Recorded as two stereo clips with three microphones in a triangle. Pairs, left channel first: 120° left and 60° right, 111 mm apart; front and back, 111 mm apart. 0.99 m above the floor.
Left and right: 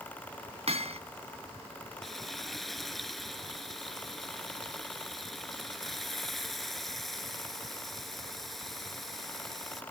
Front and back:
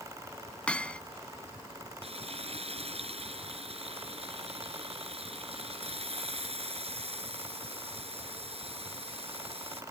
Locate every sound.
0.7 s hammering: 80° right
2.0 s frying: 150° right